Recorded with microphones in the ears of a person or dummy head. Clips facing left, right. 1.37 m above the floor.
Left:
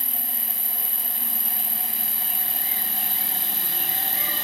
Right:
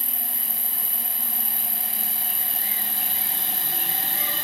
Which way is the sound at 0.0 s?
10° right (ahead or behind).